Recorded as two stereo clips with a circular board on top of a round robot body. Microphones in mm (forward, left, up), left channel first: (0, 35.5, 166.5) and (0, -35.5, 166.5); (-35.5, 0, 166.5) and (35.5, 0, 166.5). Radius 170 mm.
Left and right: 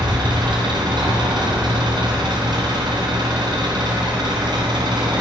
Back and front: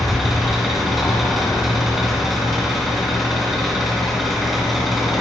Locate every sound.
0.0 s an engine running: 90° right, 2.0 m